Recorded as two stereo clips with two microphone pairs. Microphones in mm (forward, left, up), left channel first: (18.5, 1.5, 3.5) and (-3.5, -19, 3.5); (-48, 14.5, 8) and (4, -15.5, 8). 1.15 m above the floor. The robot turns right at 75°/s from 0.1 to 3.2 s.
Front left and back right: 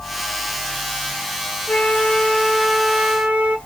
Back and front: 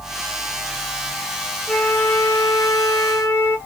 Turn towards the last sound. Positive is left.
turn(degrees=-175)